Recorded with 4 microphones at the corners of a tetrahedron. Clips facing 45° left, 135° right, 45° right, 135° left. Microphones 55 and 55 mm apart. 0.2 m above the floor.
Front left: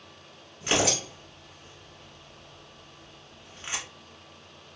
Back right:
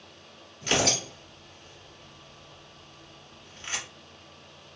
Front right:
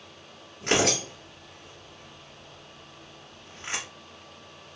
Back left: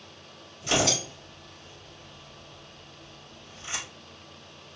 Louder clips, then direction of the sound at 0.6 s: Even, front right 2 dB; 25° right.